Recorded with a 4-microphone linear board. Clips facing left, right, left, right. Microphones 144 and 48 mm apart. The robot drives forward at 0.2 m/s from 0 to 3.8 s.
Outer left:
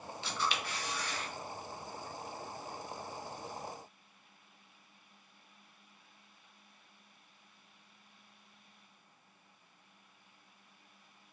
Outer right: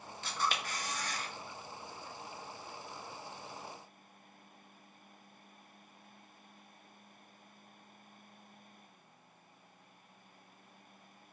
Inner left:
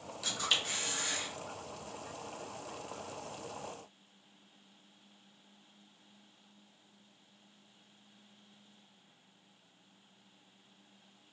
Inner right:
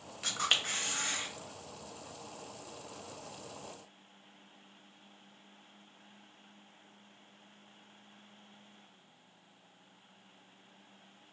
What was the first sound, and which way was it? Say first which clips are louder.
A camera shutter: outer right 1 dB, inner right 2 dB; 45° right (ahead or behind).